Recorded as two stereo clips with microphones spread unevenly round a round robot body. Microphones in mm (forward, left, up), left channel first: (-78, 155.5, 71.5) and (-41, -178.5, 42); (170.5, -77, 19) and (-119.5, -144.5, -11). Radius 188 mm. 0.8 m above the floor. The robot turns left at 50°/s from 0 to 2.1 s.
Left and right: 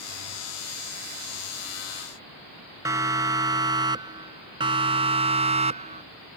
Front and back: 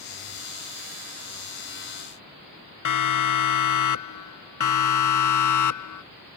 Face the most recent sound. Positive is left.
turn(degrees=-10)